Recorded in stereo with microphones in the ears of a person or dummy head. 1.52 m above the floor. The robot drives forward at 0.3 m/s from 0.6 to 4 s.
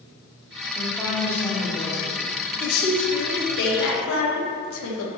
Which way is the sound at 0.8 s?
15° left (ahead or behind).